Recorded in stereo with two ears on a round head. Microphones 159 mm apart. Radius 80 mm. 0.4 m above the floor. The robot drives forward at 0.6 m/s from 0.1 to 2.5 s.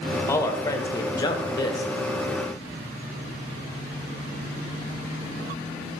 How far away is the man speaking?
About 1.2 m.